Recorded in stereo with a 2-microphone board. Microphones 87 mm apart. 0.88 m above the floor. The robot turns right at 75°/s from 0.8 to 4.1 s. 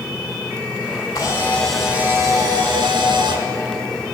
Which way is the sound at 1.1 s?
130° left.